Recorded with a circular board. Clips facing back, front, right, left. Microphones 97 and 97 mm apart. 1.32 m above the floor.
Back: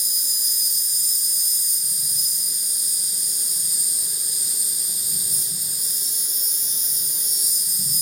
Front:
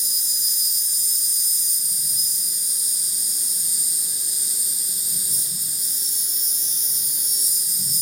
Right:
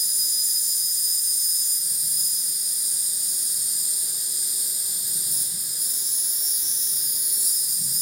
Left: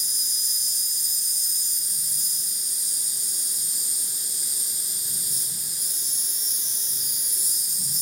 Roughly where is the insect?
Behind.